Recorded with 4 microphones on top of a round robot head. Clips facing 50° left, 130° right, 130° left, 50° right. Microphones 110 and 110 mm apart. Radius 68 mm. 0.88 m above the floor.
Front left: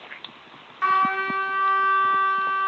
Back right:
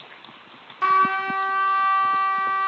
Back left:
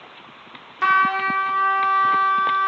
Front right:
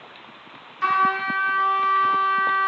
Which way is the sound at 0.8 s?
165° left.